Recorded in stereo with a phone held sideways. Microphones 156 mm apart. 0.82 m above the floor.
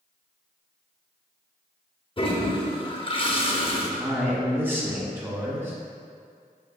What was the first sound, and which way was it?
A toilet flushing, 35° left (ahead or behind).